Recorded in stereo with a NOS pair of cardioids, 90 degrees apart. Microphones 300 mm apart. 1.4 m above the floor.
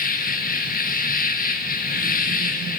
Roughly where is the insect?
Ahead left.